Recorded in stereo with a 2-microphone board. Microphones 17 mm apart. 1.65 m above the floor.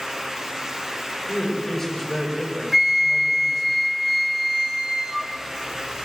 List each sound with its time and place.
1.3 s a man speaking: 15° left (ahead or behind), 8 m
2.7 s a flute: 20° right (ahead or behind), 1.0 m